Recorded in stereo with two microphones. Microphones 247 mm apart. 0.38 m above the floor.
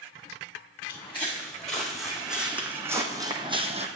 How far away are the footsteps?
About 2 m.